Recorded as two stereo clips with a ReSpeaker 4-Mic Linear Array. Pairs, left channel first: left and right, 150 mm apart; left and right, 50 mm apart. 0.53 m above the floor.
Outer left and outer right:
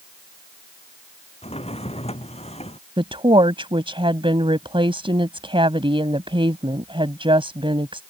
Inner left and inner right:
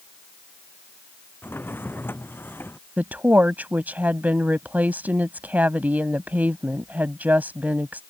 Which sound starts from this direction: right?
A woman speaking, at 3.0 s.